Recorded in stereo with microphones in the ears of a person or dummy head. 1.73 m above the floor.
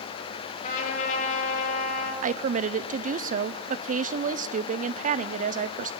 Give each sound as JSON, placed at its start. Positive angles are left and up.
{"t": 0.6, "sound": "a trumpet", "side_deg": 45, "distance_m": 5.5}
{"t": 2.2, "sound": "a woman speaking", "side_deg": -45, "distance_m": 0.7}